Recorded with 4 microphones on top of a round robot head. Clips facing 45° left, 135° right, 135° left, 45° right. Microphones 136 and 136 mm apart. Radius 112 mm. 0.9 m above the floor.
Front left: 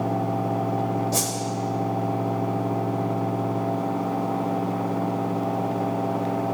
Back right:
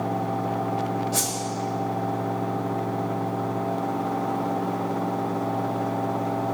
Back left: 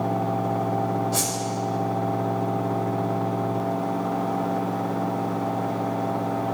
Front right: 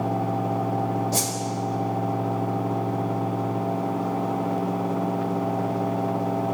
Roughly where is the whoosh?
Ahead.